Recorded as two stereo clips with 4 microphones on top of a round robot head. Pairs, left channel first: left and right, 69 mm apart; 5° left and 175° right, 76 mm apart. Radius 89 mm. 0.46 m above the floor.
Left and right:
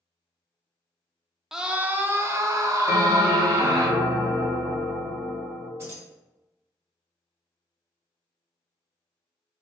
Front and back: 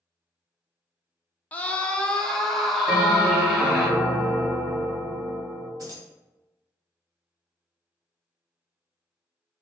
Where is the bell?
115° right, 1.1 m.